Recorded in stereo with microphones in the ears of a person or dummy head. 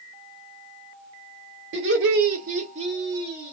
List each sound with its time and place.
1.7 s laughter: 80° right, 1.2 m; by 3.5 s 10° right (ahead or behind), 1.2 m